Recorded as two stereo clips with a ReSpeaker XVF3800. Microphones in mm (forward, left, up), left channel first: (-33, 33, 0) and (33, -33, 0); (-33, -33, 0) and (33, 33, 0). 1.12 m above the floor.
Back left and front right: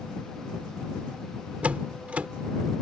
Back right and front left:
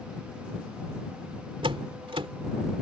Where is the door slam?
30° left.